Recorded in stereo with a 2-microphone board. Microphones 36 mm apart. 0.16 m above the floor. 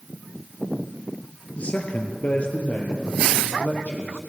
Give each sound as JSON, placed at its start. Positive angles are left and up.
{"t": 1.6, "sound": "a man speaking", "side_deg": 40, "distance_m": 2.5}